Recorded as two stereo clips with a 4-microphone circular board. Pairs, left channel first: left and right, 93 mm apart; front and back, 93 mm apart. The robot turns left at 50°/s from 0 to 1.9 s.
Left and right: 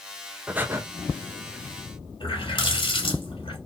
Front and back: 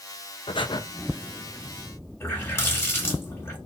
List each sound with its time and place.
0.5 s breathing: 15° right, 0.7 m; by 0.8 s 30° right, 0.7 m
2.2 s a running tap: 65° left, 2 m